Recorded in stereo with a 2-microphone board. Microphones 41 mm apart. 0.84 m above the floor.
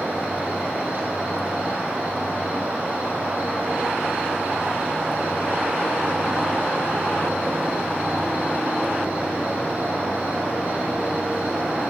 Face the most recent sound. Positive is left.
turn(degrees=-45)  # may be behind; listen again after turning